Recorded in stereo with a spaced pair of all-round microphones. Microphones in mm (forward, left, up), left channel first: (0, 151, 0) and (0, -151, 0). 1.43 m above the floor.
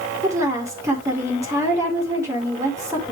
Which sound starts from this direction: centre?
A woman speaking, at 0.2 s.